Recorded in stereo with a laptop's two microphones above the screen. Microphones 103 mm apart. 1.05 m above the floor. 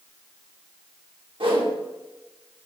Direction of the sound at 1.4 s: 55° right (ahead or behind).